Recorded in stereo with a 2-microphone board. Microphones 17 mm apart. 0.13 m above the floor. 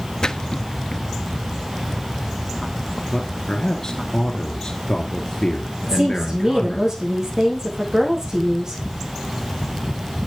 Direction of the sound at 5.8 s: 30° right (ahead or behind).